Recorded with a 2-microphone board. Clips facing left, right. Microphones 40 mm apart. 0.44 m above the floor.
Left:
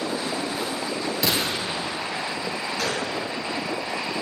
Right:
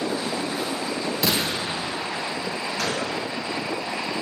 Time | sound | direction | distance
1.2 | a gunshot | centre (ahead or behind) | 1.2 m
2.8 | a gunshot | 5° left (ahead or behind) | 2.5 m